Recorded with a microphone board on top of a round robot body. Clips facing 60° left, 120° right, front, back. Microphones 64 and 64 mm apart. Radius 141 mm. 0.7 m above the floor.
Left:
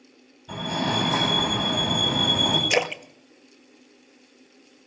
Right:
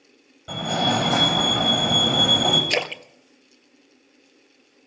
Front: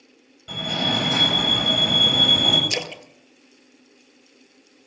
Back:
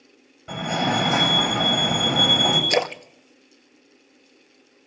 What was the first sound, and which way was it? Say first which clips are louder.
A fire alarm: right 3 dB, back 3 dB; 120° right.